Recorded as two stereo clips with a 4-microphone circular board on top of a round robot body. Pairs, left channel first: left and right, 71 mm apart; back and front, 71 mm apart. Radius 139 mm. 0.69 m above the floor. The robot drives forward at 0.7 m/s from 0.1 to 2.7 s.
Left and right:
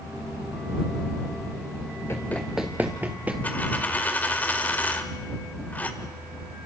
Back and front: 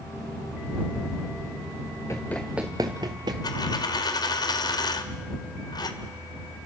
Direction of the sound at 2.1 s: 140° left.